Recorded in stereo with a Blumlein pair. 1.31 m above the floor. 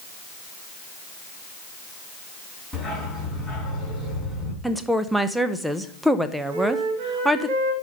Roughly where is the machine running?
I don't hear a machine running.